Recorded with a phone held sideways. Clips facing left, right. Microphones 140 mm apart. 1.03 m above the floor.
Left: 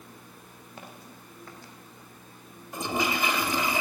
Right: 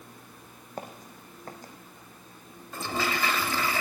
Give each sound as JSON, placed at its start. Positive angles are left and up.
{"t": 0.8, "sound": "footsteps", "side_deg": -45, "distance_m": 3.0}
{"t": 2.7, "sound": "a toilet flushing", "side_deg": 15, "distance_m": 2.5}